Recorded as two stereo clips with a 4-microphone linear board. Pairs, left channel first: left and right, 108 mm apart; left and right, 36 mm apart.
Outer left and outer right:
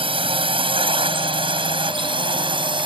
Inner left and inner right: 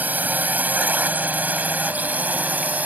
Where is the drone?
55° right (ahead or behind); by 2.9 s 50° right (ahead or behind).